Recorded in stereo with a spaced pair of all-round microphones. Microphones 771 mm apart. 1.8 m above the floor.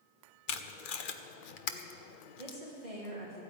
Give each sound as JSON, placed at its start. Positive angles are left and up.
{"t": 0.5, "sound": "tape being pulled", "side_deg": 85, "distance_m": 1.0}
{"t": 2.4, "sound": "a woman speaking", "side_deg": -60, "distance_m": 4.0}